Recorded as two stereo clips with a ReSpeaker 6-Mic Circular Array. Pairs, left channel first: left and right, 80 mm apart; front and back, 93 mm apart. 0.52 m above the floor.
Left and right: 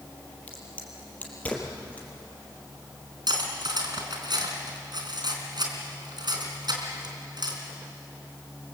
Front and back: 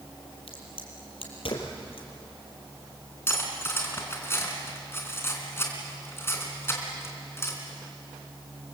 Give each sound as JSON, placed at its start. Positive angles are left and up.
{"t": 0.5, "sound": "a crack", "azimuth_deg": 15, "distance_m": 4.0}
{"t": 3.3, "sound": "cutlery clinking", "azimuth_deg": -65, "distance_m": 3.5}